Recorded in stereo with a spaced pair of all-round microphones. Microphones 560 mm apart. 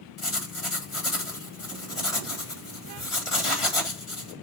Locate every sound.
0.2 s writing: 60° left (ahead or behind), 1.6 m